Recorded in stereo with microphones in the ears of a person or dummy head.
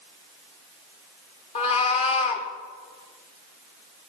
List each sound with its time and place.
1.6 s a cat meowing: 35° left (ahead or behind), 1.0 m